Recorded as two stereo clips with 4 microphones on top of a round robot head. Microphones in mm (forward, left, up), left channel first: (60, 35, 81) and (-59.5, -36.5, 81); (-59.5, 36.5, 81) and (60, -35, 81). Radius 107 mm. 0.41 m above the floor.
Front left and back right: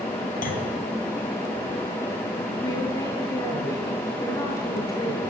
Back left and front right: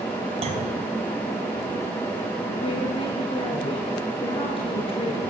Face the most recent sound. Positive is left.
turn(degrees=95)